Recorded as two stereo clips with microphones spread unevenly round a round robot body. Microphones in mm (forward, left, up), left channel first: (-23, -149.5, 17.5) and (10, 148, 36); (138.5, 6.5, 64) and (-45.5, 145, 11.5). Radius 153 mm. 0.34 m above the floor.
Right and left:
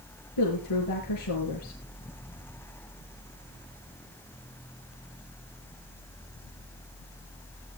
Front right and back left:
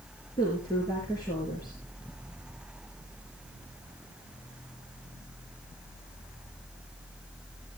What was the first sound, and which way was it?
A woman speaking, 115° right.